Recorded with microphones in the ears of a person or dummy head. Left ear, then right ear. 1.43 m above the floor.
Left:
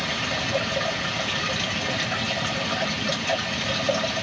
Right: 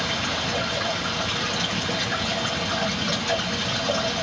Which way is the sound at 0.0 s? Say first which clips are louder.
Right 1 dB; 15° left (ahead or behind).